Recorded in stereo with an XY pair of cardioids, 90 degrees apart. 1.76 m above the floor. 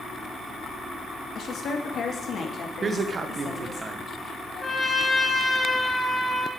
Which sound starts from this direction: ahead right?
A man speaking, at 2.8 s.